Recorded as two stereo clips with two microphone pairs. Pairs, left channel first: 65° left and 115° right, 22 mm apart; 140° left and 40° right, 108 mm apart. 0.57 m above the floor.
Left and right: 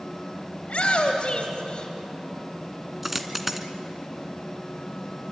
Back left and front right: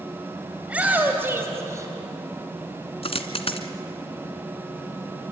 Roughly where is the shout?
Ahead left.